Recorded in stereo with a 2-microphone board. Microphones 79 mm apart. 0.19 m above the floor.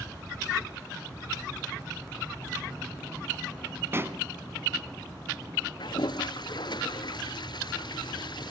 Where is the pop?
30° right (ahead or behind), 1.2 m.